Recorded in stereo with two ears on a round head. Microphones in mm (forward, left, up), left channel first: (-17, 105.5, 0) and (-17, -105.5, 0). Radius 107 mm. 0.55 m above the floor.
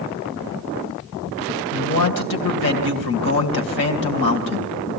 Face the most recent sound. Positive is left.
turn(degrees=45)  # may be behind; listen again after turning